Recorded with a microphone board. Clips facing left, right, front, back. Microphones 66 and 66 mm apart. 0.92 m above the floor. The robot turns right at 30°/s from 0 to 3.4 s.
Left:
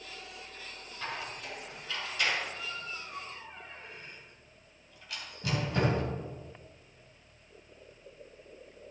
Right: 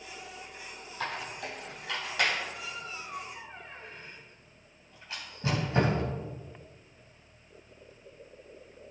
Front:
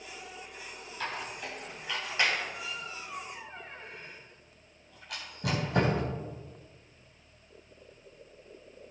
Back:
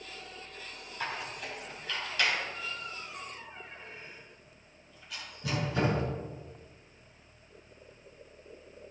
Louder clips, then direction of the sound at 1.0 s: Right 3 dB, even; 100° right.